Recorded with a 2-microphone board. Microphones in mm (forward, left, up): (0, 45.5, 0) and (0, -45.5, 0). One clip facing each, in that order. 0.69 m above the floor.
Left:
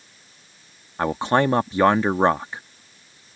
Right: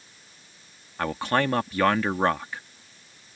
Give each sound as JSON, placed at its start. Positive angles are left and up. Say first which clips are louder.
{"t": 1.0, "sound": "a man speaking", "louder": "left 5 dB", "side_deg": 25}